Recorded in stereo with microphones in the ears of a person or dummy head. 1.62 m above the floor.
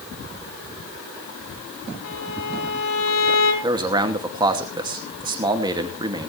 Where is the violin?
80° left, 4.5 m.